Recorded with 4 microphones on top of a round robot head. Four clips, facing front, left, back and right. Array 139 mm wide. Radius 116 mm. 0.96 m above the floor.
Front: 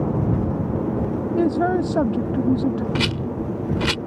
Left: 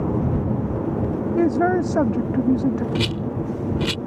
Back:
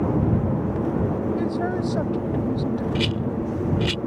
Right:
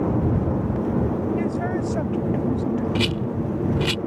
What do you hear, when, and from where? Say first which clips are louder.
1.4 s a man speaking: left 6 dB, front 5 dB; 55° left
3.0 s a rattle: even, even; 5° left